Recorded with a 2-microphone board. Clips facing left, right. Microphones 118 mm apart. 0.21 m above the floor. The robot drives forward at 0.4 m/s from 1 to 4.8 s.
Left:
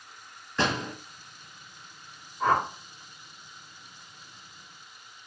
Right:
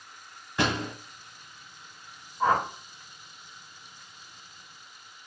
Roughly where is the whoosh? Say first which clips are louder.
Even; centre.